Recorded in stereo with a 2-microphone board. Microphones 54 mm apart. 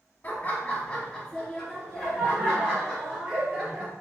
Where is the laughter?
30° left (ahead or behind), 1.2 m; by 3.9 s 15° right (ahead or behind), 2.5 m.